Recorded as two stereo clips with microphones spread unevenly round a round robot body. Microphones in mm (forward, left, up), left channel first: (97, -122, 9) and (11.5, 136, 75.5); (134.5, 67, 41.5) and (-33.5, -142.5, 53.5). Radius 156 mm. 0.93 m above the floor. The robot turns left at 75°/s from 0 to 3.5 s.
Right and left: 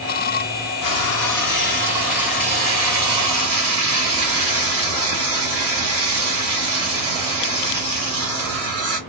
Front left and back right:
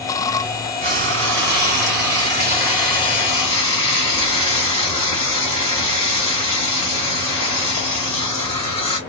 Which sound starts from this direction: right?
Frying, at 0.8 s.